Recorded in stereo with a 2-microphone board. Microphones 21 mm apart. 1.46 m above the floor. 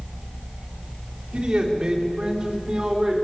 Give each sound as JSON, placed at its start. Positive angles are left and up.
{"t": 1.3, "sound": "a man speaking", "side_deg": -45, "distance_m": 4.5}